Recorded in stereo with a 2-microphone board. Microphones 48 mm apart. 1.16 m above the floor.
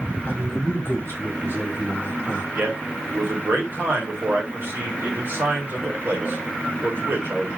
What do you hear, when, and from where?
0.2 s a man speaking: 50° left (ahead or behind), 1.3 m
2.5 s a man speaking: 45° right (ahead or behind), 1.3 m